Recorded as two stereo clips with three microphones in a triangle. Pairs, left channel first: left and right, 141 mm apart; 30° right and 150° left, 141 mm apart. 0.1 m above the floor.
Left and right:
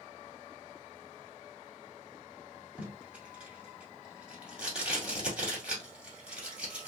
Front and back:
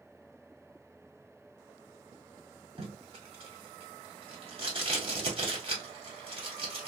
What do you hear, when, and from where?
2.8 s tape being pulled: 170° right, 1.5 m